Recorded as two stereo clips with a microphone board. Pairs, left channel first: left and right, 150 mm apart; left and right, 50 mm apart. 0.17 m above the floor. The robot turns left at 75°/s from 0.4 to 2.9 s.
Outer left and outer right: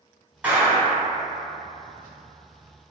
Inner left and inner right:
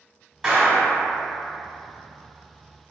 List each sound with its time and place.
0.4 s a clap: 10° right (ahead or behind), 1.1 m; by 1.0 s 5° left (ahead or behind), 1.1 m